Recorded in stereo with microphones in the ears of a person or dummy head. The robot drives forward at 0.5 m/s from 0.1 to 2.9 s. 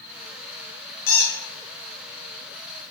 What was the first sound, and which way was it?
A squeak, 55° left (ahead or behind).